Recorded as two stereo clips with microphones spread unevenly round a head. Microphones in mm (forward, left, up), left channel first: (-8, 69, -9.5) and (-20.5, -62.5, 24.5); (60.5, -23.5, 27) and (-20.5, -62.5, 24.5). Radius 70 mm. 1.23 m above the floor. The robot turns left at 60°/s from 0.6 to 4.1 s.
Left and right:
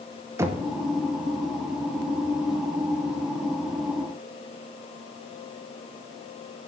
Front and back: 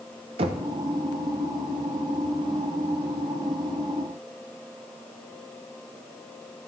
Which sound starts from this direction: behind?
Knocking, at 0.4 s.